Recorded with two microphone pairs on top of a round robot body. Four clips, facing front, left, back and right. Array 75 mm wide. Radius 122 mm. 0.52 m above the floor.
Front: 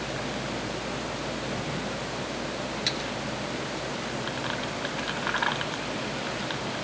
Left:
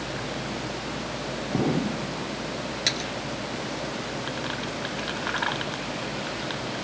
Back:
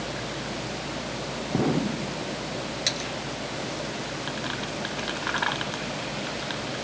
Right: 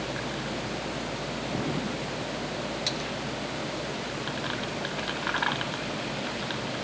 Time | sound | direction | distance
1.5 | an explosion | 135° left | ?
2.9 | a splash | 85° left | ?